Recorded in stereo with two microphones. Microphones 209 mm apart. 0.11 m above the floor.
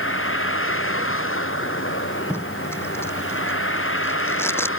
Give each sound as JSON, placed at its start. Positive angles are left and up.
{"t": 0.0, "sound": "a vehicle", "side_deg": 80}
{"t": 2.3, "sound": "tape being pulled", "side_deg": 10}